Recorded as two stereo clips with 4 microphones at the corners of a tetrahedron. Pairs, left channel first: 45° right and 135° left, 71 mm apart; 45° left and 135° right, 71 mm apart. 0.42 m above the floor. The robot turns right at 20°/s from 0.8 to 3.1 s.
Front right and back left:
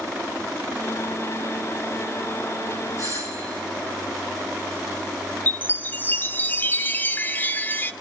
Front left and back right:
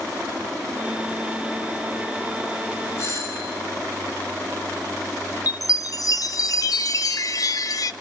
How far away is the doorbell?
About 7.5 m.